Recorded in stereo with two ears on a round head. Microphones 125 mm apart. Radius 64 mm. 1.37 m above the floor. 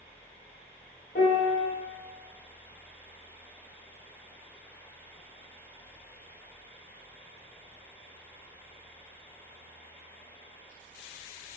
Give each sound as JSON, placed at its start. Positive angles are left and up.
{"t": 1.1, "sound": "a piano", "side_deg": 60, "distance_m": 0.6}